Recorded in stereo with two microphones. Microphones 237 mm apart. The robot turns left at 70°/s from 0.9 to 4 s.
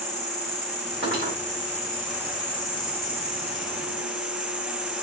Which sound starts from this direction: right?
Cutlery clinking, at 1.0 s.